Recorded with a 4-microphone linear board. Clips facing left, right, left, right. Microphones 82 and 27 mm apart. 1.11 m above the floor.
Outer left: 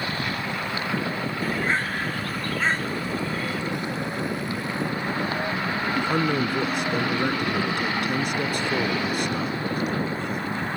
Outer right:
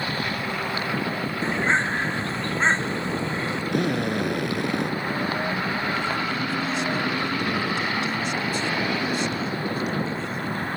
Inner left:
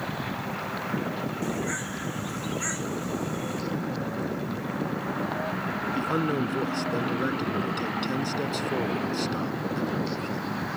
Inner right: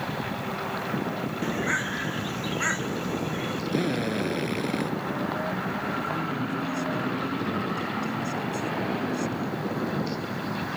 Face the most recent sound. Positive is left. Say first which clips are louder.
# outer left 3 dB, inner left 3 dB
turn(degrees=55)  # may be behind; listen again after turning